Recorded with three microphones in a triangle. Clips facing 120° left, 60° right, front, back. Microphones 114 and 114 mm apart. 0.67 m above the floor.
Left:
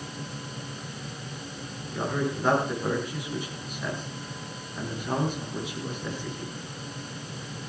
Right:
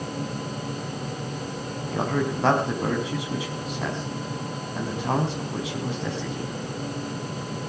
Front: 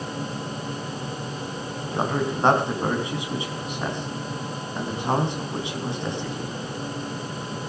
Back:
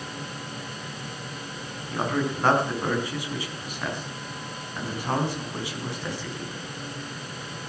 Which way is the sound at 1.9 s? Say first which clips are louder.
Right 3 dB, front 1 dB; 70° right.